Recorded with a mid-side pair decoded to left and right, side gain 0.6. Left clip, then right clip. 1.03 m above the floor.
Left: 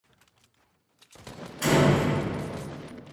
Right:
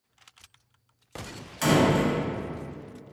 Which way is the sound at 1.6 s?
60° right.